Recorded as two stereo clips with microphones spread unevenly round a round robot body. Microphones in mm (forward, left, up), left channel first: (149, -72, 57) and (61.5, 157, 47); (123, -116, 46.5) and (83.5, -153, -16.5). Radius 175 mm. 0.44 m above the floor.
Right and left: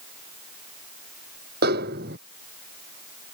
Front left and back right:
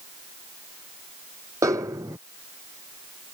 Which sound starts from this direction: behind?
A snare drum, at 1.6 s.